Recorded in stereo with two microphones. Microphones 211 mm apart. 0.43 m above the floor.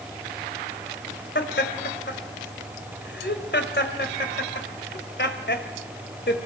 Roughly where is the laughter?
Left.